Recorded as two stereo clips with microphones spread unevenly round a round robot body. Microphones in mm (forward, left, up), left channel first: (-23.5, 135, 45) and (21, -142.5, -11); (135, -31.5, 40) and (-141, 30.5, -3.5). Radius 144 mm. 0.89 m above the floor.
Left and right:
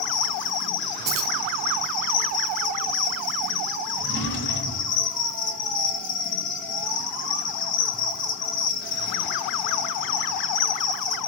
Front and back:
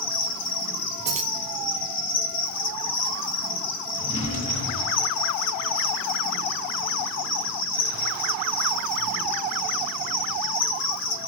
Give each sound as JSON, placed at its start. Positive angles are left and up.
{"t": 0.0, "sound": "an insect", "azimuth_deg": 35, "distance_m": 2.0}
{"t": 1.1, "sound": "keys jangling", "azimuth_deg": -125, "distance_m": 1.7}
{"t": 4.0, "sound": "a drawer", "azimuth_deg": 50, "distance_m": 1.8}